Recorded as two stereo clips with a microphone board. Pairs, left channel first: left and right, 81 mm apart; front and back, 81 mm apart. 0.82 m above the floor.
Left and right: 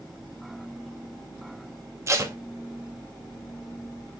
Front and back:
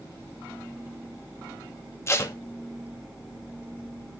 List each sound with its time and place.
2.1 s tape being pulled: 50° right, 1.5 m